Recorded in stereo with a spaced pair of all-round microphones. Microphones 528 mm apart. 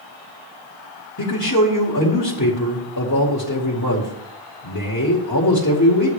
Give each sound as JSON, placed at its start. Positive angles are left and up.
{"t": 1.2, "sound": "a man speaking", "side_deg": 35, "distance_m": 2.0}